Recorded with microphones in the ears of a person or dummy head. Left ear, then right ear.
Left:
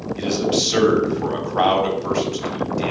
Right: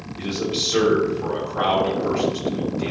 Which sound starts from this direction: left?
A man speaking, at 0.2 s.